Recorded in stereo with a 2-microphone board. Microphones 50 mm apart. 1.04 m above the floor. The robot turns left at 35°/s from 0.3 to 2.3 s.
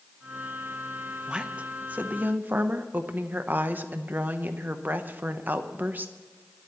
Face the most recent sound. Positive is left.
turn(degrees=-60)